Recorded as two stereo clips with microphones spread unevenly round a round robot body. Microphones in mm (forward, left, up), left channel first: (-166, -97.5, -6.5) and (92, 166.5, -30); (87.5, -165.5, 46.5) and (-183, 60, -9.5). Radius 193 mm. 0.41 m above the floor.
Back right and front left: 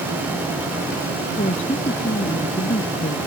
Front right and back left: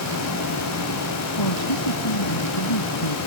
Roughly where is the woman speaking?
Ahead right.